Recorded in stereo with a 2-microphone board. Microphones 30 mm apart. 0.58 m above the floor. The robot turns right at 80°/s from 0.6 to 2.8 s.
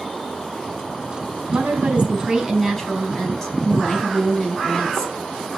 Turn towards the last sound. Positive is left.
turn(degrees=15)